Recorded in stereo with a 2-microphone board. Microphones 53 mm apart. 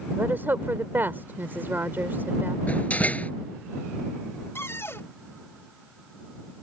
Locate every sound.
0.2 s a woman speaking: 45° right (ahead or behind)
2.7 s a door slam: 25° left (ahead or behind)
4.5 s a cupboard door: 50° left (ahead or behind)